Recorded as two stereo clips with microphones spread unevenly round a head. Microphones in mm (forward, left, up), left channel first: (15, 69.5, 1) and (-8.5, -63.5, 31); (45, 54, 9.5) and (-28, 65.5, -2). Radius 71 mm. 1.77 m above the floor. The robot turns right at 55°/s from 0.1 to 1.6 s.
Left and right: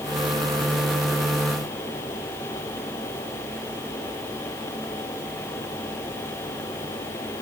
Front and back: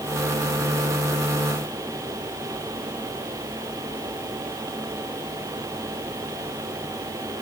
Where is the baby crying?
No baby crying in this recording.